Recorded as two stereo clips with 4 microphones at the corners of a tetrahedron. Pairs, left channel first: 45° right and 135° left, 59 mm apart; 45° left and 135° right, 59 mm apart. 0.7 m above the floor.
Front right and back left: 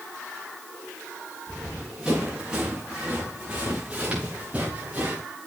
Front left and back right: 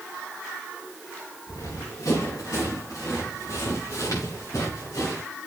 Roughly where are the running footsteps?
Ahead left.